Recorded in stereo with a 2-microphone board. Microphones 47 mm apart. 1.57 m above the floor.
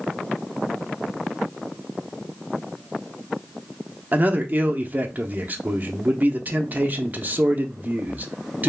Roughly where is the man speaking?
Right.